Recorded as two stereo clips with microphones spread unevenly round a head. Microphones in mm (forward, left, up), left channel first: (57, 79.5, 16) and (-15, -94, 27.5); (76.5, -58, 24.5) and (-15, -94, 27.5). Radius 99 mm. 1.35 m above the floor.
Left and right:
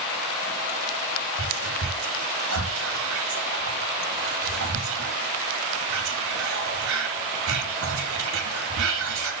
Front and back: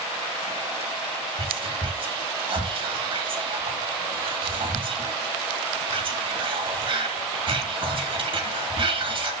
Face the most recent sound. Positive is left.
turn(degrees=-130)